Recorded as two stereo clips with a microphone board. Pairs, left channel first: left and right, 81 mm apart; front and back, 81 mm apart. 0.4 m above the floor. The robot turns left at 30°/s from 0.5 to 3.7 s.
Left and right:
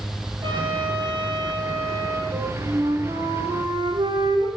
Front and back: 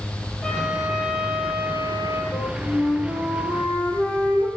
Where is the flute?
70° right, 5.5 m; by 4.5 s 115° right, 5.5 m.